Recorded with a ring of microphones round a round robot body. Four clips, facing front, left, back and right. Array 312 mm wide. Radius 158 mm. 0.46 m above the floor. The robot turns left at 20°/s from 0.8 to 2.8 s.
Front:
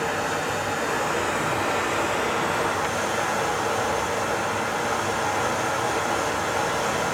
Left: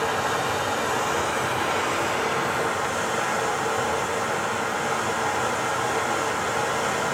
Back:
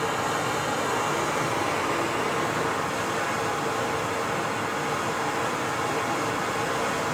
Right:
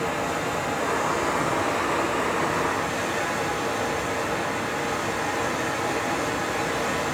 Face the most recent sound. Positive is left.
turn(degrees=45)